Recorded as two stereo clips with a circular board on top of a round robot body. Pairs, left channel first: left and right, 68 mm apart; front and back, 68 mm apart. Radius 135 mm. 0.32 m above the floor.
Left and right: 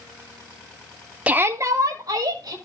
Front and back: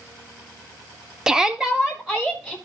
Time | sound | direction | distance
1.3 | a shout | 115° right | 0.9 m